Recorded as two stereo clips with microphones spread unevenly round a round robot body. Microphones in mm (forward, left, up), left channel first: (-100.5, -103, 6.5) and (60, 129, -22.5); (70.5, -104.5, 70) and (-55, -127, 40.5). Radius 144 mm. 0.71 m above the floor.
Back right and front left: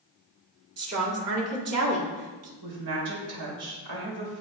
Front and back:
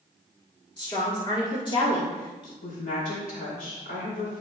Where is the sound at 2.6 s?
30° left, 2.5 m.